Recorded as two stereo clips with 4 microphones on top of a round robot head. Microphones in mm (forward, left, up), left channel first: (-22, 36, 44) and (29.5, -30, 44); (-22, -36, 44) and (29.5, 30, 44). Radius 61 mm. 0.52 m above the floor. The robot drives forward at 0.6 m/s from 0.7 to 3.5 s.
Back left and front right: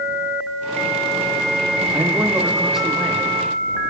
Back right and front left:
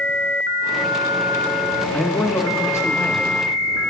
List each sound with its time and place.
1.9 s a man speaking: 70° right, 1.0 m; by 3.3 s 150° right, 1.2 m